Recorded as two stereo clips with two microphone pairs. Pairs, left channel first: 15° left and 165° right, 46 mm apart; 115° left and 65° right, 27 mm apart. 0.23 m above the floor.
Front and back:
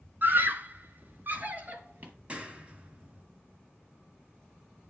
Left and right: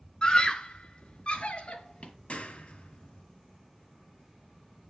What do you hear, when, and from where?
0.2 s a scream: 160° left, 1.8 m; by 2.1 s 145° left, 4 m
2.3 s a clap: 135° left, 3 m